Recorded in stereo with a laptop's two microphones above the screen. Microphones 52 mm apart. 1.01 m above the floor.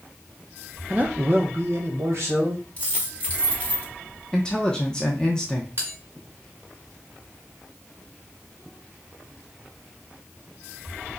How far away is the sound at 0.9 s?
About 0.6 m.